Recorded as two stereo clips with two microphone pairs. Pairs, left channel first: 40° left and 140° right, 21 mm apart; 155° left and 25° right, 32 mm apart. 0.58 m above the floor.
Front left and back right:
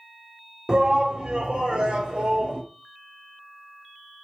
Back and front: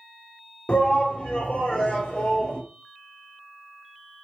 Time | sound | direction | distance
0.7 | a shout | 175° right | 1.5 m